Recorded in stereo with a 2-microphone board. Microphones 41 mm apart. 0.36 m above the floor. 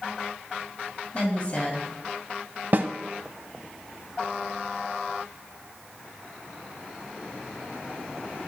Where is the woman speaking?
35° left (ahead or behind), 1.6 m.